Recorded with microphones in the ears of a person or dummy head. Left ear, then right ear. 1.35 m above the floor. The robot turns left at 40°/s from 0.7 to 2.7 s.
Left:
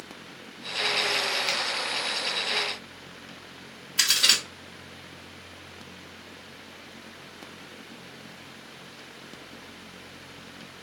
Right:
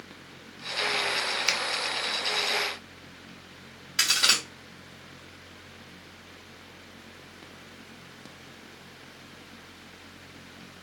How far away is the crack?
About 2.5 m.